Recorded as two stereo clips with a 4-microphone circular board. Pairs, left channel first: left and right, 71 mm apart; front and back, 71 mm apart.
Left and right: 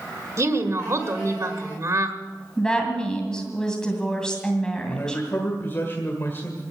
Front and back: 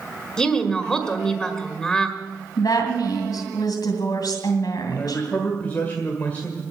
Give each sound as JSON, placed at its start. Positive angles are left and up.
{"t": 0.4, "sound": "a woman speaking", "azimuth_deg": -80, "distance_m": 1.5}
{"t": 2.6, "sound": "a woman speaking", "azimuth_deg": 10, "distance_m": 2.5}
{"t": 4.9, "sound": "a man speaking", "azimuth_deg": 50, "distance_m": 1.9}